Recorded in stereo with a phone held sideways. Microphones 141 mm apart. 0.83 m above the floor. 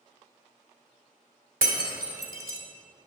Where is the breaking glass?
85° right, 1.8 m.